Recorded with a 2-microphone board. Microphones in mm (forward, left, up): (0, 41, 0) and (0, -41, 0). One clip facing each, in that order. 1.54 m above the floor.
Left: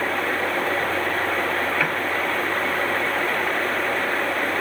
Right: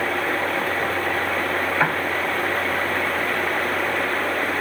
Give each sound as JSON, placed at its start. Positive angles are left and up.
{"t": 1.8, "sound": "a piano", "side_deg": -30}